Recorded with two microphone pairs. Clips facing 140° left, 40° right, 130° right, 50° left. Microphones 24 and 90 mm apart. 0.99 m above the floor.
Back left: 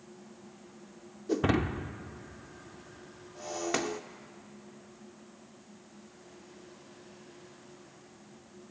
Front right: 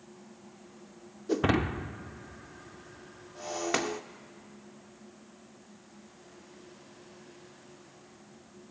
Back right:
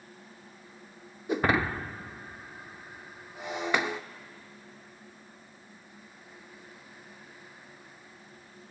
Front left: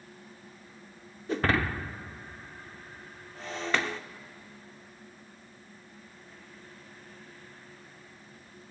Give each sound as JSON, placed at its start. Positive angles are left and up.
{"t": 1.3, "sound": "breaking glass", "azimuth_deg": -80, "distance_m": 0.6}